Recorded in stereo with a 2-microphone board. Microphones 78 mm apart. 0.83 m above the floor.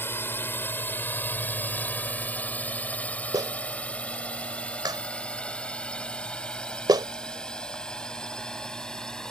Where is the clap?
60° right (ahead or behind).